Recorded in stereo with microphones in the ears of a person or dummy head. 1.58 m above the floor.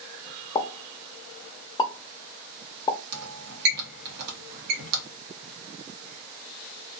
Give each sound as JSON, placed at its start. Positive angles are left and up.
{"t": 0.6, "sound": "a pop", "side_deg": 20, "distance_m": 0.5}
{"t": 3.1, "sound": "a squeak", "side_deg": -60, "distance_m": 0.9}